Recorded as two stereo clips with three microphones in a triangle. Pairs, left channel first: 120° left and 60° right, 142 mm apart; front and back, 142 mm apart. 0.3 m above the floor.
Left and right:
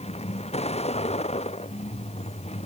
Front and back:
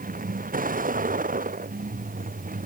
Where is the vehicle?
165° left; by 2.7 s 160° left.